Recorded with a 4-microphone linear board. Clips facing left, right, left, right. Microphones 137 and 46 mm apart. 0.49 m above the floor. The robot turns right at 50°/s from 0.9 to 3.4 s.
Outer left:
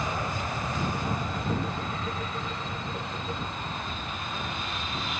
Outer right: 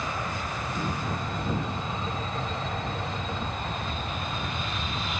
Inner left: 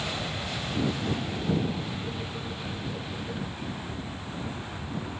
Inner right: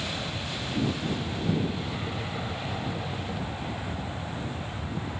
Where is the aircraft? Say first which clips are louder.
Outer left 1 dB, inner left 1 dB; 155° left; by 5.2 s 80° right.